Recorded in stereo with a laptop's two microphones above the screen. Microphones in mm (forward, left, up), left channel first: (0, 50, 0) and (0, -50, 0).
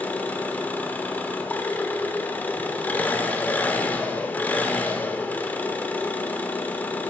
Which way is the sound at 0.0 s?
15° left (ahead or behind).